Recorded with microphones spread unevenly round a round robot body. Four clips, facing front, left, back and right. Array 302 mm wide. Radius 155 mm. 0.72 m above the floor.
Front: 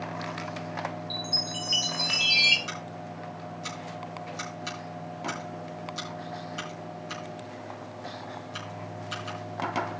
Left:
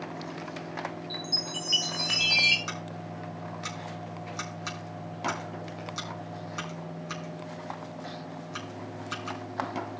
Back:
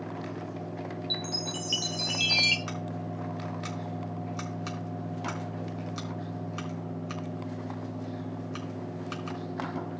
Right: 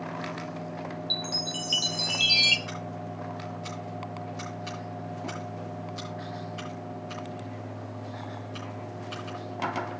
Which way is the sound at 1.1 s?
150° right.